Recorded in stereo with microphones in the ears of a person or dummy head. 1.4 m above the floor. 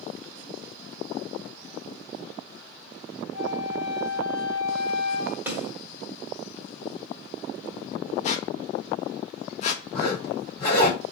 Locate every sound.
3.3 s a flute: 30° left (ahead or behind), 3 m
5.5 s a snare drum: 10° right (ahead or behind), 1.4 m
8.2 s a squeak: 40° left (ahead or behind), 0.9 m
9.9 s a zipper: 25° left (ahead or behind), 3 m